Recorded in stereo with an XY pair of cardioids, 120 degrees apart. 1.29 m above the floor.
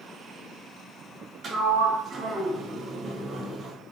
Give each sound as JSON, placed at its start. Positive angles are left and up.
{"t": 1.4, "sound": "a sliding door", "azimuth_deg": -40, "distance_m": 2.5}